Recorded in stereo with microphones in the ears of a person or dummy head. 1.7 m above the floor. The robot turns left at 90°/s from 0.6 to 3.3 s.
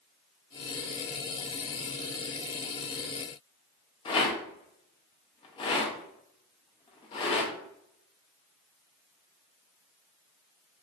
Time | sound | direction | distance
4.0 | a rattle | 25° left (ahead or behind) | 0.5 m